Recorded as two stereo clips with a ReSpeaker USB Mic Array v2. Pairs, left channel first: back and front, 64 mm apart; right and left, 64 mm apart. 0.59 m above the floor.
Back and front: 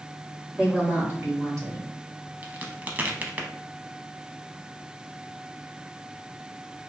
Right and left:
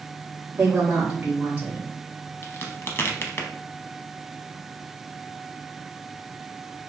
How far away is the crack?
About 0.6 m.